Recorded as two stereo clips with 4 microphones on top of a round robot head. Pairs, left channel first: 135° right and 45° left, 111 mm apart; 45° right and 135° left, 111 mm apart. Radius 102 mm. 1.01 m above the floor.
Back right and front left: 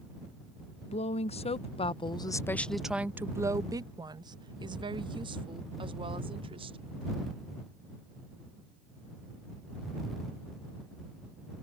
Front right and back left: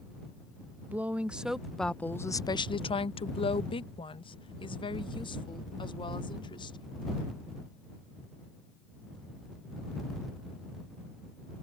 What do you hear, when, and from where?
0.9 s a woman speaking: 150° right; by 7.1 s 5° left